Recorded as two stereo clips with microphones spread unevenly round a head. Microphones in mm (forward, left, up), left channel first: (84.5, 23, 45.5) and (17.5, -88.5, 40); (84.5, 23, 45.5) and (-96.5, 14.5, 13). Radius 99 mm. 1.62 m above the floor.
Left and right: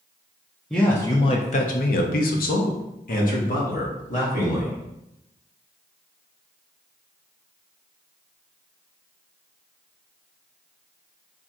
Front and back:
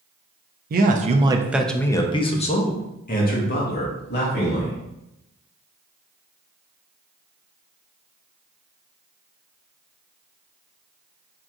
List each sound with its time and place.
0.7 s a man speaking: 145° left, 0.7 m; by 4.8 s 35° left, 2 m